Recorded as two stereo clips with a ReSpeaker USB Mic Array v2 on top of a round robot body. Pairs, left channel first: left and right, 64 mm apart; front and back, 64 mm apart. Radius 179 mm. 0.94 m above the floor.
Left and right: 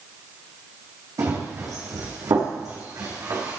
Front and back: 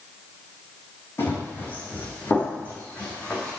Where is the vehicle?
I don't hear a vehicle.